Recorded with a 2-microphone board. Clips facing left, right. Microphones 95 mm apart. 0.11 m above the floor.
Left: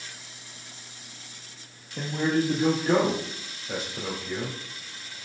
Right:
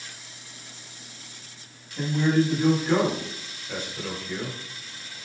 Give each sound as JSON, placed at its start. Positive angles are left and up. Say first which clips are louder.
{"t": 2.0, "sound": "a man speaking", "louder": "right 3 dB", "side_deg": 50, "distance_m": 3.5}